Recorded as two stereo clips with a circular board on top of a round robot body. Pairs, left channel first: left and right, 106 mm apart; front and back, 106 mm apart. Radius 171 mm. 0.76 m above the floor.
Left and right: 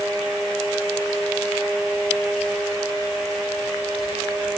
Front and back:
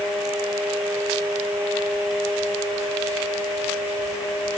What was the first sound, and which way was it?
Only background noise.